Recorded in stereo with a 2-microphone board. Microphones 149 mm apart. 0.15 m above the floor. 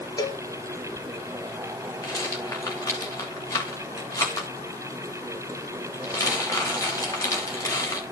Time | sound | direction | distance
0.2 | a cowbell | 30° left (ahead or behind) | 1.3 m
2.0 | a rattle | 20° left (ahead or behind) | 3 m